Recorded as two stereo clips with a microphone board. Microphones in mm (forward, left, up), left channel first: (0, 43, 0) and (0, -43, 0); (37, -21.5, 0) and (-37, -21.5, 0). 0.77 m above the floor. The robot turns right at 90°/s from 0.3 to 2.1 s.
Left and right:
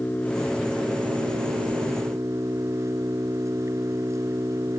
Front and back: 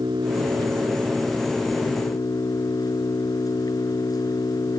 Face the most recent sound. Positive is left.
turn(degrees=-35)